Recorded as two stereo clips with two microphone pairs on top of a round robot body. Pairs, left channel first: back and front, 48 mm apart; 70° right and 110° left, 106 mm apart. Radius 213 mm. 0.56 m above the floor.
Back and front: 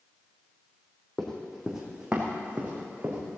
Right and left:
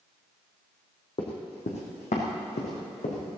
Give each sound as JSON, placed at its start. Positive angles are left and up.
{"t": 1.2, "sound": "running footsteps", "azimuth_deg": -105, "distance_m": 1.6}